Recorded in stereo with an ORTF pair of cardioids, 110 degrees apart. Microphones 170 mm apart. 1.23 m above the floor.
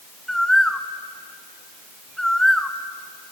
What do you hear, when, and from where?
0.3 s a bird: 5° left, 1.0 m